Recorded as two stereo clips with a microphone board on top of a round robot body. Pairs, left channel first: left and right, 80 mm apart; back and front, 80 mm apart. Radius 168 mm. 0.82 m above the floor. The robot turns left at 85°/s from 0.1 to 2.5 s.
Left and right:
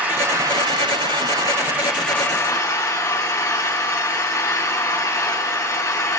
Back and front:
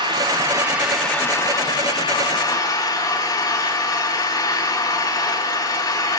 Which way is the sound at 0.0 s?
15° right.